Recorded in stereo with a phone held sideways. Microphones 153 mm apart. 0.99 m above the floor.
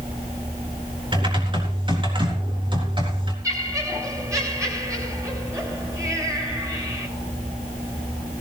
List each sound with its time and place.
1.1 s typing on a keyboard: 35° right (ahead or behind), 4 m
3.4 s laughter: 20° right (ahead or behind), 7 m